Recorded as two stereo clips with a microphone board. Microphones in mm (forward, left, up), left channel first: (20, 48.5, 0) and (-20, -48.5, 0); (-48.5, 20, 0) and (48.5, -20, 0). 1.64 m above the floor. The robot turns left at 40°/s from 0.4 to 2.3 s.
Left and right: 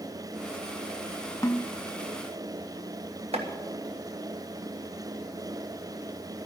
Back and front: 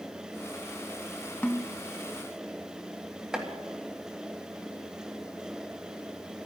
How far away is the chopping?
About 1.7 m.